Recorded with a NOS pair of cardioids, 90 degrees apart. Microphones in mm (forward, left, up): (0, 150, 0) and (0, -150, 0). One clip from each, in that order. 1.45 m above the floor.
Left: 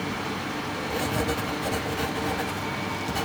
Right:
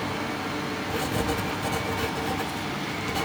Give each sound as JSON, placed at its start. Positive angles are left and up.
{"t": 0.9, "sound": "writing", "azimuth_deg": 5, "distance_m": 1.2}